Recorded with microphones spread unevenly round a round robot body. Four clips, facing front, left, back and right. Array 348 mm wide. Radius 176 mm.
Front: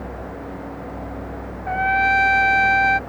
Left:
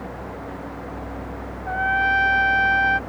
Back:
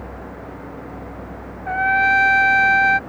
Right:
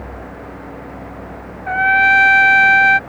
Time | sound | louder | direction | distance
1.7 | a trumpet | right 7 dB, back 1 dB | 115° right | ?